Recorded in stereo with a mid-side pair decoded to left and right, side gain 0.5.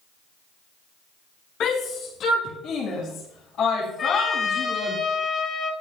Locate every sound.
1.6 s a shout: 60° left, 2.5 m; by 5.0 s 70° left, 5 m
4.0 s a trumpet: 45° left, 3 m